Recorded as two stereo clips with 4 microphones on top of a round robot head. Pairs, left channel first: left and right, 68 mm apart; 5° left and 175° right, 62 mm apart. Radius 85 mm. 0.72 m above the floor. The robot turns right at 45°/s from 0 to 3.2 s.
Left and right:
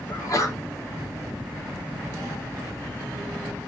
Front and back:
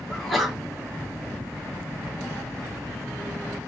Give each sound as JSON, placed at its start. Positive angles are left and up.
{"t": 0.1, "sound": "a sneeze", "azimuth_deg": 80, "distance_m": 1.5}